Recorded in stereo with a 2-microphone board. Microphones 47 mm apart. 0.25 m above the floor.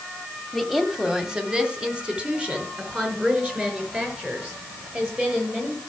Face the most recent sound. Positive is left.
turn(degrees=-25)  # may be behind; listen again after turning